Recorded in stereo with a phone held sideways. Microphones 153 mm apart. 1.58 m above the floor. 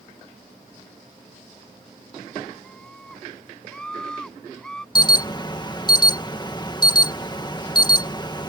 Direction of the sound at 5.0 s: 30° left (ahead or behind).